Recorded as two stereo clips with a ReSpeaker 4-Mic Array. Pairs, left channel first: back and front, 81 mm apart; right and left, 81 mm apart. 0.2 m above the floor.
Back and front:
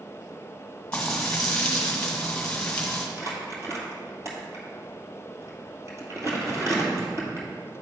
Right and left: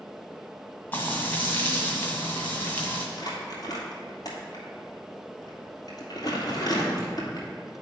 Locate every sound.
0.9 s frying: 120° right, 1.7 m
3.2 s crumpling: 50° right, 1.9 m